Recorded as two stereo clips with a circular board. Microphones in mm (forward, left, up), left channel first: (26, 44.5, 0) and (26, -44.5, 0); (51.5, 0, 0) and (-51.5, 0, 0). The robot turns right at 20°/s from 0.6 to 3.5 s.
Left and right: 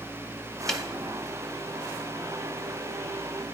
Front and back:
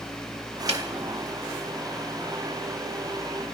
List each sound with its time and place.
0.7 s a snare drum: 175° left, 0.8 m